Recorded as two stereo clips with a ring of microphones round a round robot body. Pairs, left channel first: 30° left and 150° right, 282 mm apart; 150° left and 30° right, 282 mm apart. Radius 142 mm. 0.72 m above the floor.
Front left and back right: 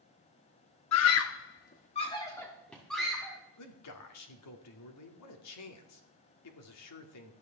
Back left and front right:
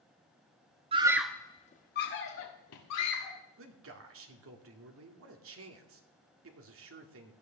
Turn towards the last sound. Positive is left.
turn(degrees=5)